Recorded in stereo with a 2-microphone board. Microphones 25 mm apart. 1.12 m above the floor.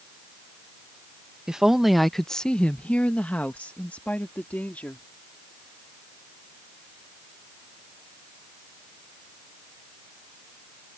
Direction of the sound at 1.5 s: 25° right (ahead or behind).